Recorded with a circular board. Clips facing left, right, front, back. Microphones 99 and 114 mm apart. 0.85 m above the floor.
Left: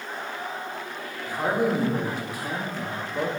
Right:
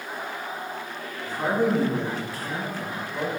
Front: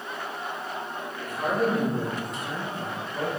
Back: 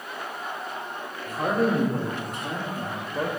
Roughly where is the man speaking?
Behind.